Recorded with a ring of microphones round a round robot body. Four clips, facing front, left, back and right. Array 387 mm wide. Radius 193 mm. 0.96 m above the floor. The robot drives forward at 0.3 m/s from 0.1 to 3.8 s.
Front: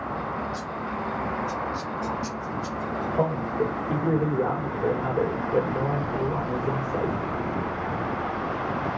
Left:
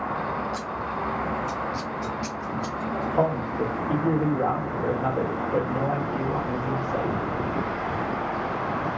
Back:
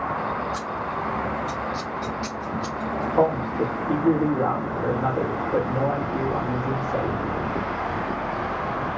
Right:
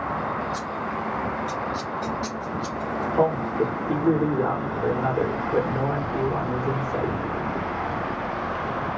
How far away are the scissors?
About 1.8 m.